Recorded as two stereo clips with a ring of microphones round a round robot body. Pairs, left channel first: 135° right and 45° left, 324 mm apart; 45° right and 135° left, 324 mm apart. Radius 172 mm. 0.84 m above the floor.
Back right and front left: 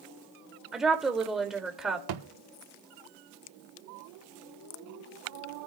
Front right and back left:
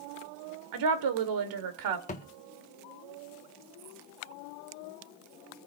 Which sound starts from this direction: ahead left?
A thud, at 2.1 s.